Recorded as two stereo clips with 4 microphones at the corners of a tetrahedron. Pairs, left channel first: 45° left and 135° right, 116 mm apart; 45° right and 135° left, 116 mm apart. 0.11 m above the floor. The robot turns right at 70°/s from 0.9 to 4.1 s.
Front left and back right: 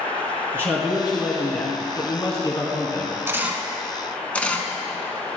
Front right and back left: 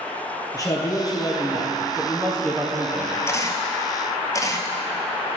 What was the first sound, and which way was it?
A man speaking, 80° right.